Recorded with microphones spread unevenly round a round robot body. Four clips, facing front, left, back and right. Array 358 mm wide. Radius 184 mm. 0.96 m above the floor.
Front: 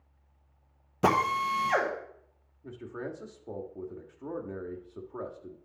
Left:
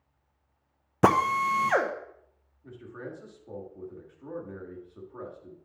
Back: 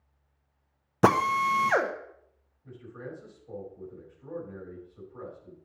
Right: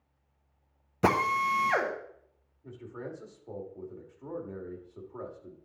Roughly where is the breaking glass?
No breaking glass in this recording.